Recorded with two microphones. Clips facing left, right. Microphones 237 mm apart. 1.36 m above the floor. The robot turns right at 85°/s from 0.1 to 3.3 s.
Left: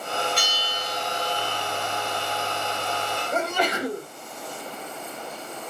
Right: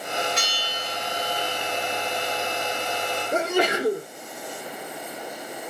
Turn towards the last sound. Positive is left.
turn(degrees=-85)